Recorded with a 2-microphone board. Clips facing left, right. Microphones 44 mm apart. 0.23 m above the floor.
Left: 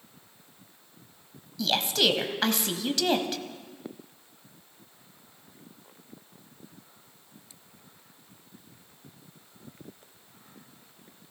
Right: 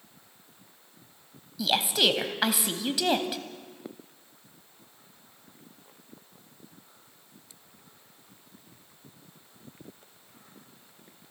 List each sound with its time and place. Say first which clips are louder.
1.6 s a woman speaking: even; 10° right (ahead or behind), 1.1 m